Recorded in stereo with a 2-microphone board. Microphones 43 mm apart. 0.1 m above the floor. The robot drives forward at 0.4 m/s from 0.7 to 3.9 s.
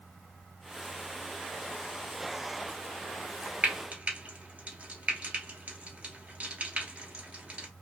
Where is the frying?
35° right (ahead or behind), 1.0 m; by 7.7 s 30° right (ahead or behind), 1.1 m.